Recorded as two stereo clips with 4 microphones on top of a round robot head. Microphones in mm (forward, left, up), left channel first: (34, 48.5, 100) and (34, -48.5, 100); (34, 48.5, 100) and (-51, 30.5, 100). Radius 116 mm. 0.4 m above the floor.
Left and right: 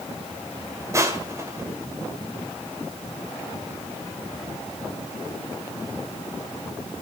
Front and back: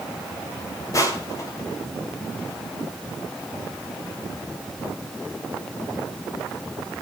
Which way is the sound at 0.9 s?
35° right.